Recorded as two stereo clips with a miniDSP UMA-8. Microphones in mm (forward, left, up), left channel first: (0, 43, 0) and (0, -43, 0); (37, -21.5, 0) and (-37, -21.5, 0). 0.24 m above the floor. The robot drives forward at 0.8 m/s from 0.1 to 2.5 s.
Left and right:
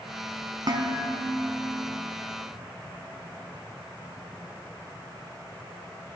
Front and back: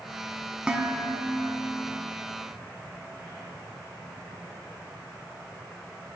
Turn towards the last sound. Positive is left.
turn(degrees=-145)